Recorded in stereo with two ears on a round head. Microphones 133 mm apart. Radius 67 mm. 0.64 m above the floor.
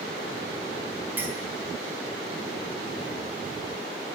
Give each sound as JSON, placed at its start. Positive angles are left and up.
{"t": 1.2, "sound": "a clink", "side_deg": -15, "distance_m": 4.5}